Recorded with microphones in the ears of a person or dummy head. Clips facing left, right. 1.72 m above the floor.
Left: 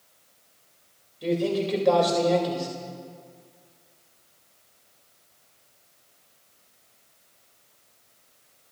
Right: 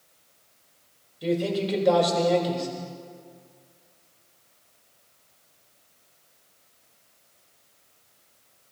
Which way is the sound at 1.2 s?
Centre (ahead or behind).